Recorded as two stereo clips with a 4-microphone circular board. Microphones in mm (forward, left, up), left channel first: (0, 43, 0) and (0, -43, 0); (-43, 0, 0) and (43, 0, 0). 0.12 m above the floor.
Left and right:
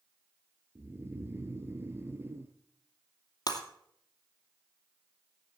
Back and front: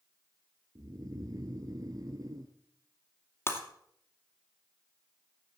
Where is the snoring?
35° right, 1.1 m.